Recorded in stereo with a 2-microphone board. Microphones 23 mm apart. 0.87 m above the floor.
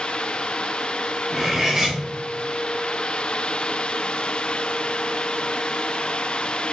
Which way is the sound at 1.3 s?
25° right (ahead or behind).